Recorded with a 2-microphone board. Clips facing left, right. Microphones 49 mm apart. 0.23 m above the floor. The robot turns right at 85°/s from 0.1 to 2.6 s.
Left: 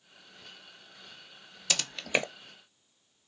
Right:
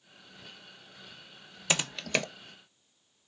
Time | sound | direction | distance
1.7 | typing on a keyboard | 25° right (ahead or behind) | 0.6 m